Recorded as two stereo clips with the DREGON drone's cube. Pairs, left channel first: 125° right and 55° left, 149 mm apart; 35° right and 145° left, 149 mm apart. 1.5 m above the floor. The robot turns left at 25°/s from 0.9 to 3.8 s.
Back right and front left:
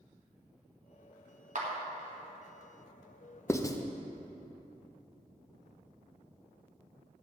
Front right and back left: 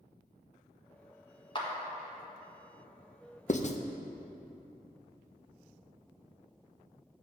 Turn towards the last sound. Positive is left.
turn(degrees=-65)